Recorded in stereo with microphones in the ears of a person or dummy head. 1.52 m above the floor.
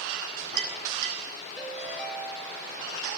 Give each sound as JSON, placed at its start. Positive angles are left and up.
{"t": 0.1, "sound": "a clink", "side_deg": -65, "distance_m": 7.0}
{"t": 1.6, "sound": "a ringtone", "side_deg": -5, "distance_m": 3.5}